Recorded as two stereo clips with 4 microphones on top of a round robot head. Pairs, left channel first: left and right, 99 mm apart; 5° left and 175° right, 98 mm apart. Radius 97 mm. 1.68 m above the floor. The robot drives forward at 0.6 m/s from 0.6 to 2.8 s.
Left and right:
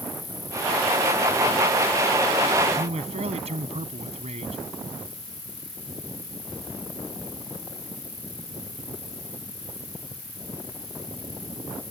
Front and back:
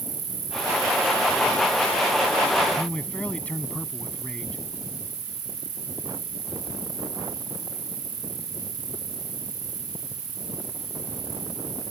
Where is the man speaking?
75° right.